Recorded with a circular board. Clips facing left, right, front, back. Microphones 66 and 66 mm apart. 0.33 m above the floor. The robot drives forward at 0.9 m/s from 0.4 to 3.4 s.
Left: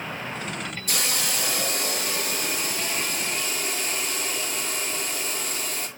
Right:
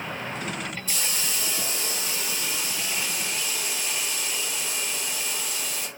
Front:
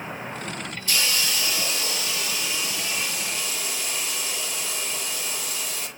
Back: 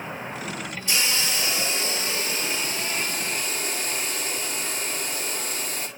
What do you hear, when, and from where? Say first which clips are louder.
0.9 s a hiss: left 3 dB, even; 110° left, 4 m; by 5.9 s 135° left, 5.5 m